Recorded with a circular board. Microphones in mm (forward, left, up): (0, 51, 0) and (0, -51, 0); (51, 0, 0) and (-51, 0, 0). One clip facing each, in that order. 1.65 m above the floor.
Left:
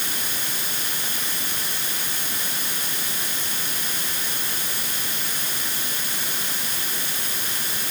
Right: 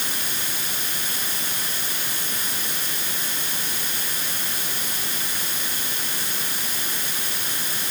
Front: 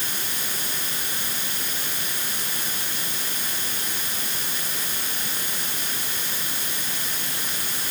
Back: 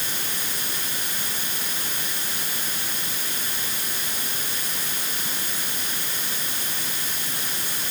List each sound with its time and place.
Only background noise.